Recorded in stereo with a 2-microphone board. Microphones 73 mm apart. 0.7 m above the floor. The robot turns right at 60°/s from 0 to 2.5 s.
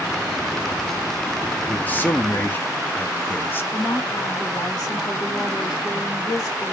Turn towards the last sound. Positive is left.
turn(degrees=55)  # may be behind; listen again after turning